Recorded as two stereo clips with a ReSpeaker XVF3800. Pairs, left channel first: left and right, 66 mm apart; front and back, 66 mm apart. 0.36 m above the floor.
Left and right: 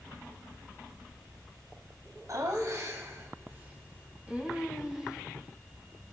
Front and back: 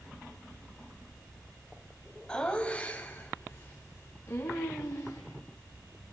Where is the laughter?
75° right, 2.5 m; by 5.2 s 10° right, 3 m.